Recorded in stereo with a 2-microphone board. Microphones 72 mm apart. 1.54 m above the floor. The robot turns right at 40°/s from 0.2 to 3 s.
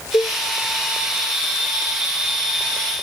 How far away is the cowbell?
About 1.0 m.